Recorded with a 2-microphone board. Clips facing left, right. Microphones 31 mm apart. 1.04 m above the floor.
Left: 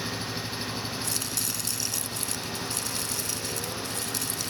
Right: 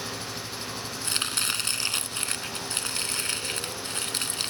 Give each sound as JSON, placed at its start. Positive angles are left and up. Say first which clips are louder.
{"t": 0.0, "sound": "an engine running", "louder": "left 2 dB", "side_deg": 30}
{"t": 1.0, "sound": "chopping", "louder": "right 4 dB", "side_deg": -50}